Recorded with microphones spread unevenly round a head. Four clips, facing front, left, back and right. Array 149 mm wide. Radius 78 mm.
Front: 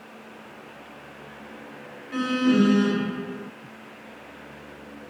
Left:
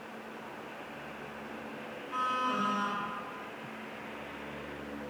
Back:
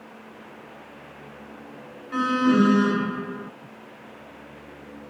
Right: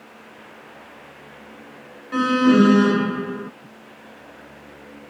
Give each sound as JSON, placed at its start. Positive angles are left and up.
{"t": 2.1, "sound": "an alarm", "azimuth_deg": -85}